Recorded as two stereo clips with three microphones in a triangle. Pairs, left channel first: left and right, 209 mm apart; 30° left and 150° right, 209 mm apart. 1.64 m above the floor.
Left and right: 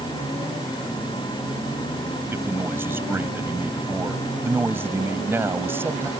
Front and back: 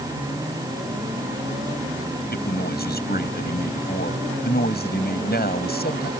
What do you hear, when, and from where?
2.3 s a man speaking: 10° right